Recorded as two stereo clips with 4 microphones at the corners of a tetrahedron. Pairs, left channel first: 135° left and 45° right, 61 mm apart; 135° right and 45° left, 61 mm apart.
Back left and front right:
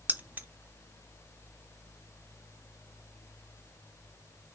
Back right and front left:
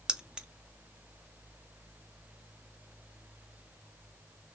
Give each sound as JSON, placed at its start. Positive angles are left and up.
{"t": 0.1, "sound": "keys jangling", "azimuth_deg": -20, "distance_m": 0.5}